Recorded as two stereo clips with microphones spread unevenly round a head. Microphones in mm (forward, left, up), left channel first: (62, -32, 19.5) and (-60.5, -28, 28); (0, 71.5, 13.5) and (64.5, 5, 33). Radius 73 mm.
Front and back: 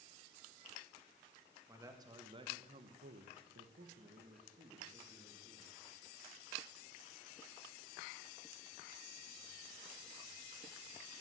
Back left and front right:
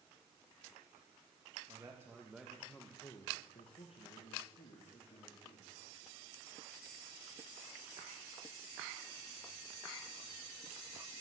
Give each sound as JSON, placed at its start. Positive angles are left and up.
{"t": 1.7, "sound": "a man speaking", "azimuth_deg": -115, "distance_m": 2.5}